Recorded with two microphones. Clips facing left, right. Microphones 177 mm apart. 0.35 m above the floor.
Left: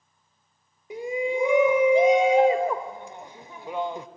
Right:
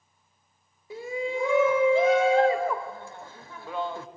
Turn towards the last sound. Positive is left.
turn(degrees=20)  # may be behind; listen again after turning